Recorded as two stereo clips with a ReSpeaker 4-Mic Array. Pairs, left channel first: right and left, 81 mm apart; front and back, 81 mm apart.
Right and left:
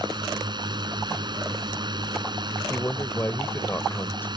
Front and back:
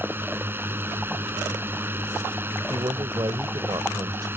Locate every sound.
0.0 s a drone: 115° left
2.7 s a man speaking: 155° right